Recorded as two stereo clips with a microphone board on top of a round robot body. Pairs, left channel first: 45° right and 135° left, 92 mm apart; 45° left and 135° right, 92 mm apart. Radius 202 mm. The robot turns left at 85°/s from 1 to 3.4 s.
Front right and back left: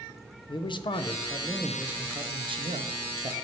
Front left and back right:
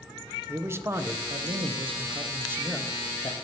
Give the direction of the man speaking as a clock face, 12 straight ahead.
2 o'clock.